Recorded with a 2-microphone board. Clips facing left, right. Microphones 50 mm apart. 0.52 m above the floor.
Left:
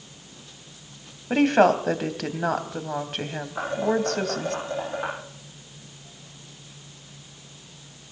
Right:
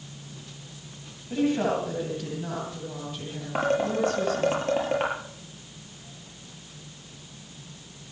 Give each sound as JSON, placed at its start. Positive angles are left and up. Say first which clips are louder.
{"t": 1.3, "sound": "a woman speaking", "louder": "left 7 dB", "side_deg": 75, "distance_m": 2.5}
{"t": 3.5, "sound": "dishes clattering", "louder": "even", "side_deg": -70, "distance_m": 8.5}